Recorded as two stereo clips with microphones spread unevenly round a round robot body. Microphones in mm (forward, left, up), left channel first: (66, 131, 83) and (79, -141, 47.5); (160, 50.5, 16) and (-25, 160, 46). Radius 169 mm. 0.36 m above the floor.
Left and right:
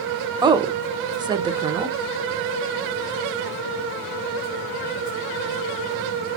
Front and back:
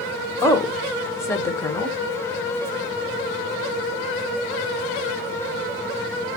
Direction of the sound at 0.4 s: 65° right.